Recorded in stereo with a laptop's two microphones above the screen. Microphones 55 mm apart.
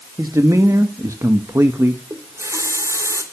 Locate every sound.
0.2 s a man speaking: 75° right (ahead or behind), 1.4 m; by 2.0 s 50° right (ahead or behind), 1.0 m
2.1 s a running tap: 70° right (ahead or behind), 2.5 m